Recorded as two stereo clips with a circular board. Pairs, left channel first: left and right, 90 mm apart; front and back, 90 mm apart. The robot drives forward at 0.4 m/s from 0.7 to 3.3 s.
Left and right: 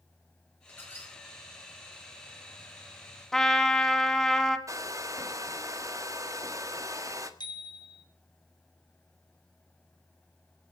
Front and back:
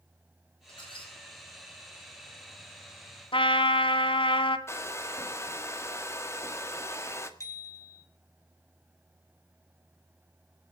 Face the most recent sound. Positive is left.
turn(degrees=55)